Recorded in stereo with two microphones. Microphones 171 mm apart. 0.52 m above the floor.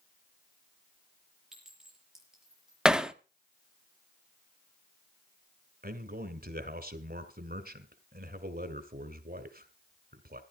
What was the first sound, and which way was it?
A clink, 5° right (ahead or behind).